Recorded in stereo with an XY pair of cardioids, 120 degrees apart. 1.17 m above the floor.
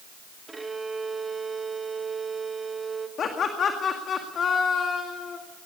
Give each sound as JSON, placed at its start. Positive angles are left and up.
{"t": 0.5, "sound": "a violin", "azimuth_deg": -15, "distance_m": 1.7}
{"t": 3.2, "sound": "laughter", "azimuth_deg": 45, "distance_m": 2.0}